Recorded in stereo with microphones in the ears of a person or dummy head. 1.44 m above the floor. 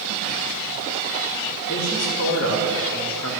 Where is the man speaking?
80° left, 2.5 m; by 3.3 s 85° left, 1.6 m.